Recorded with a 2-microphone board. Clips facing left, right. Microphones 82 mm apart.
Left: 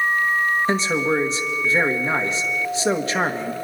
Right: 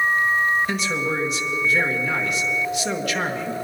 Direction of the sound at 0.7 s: 30° left (ahead or behind).